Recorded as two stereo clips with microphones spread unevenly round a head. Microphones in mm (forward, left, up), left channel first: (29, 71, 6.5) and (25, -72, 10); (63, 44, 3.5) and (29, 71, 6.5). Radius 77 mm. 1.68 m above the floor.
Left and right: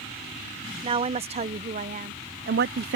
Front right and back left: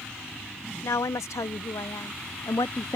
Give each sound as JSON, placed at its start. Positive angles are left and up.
{"t": 0.8, "sound": "a woman speaking", "azimuth_deg": -40}